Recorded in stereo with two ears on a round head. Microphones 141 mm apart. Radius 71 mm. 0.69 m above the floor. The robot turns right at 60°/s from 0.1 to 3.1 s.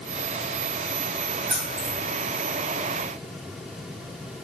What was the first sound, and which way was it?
Keys jangling, 70° right (ahead or behind).